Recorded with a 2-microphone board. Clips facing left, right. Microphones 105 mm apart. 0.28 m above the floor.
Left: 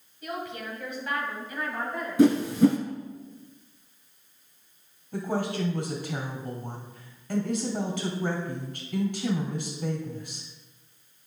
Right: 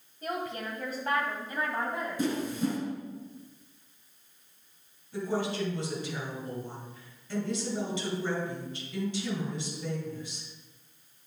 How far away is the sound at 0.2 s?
About 2 m.